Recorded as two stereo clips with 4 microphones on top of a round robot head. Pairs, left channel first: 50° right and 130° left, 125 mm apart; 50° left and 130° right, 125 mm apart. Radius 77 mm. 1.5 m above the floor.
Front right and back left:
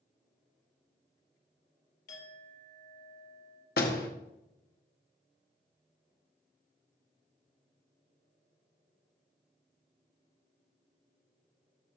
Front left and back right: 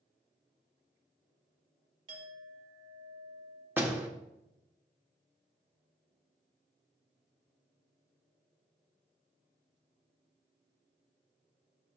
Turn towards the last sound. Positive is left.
turn(degrees=-55)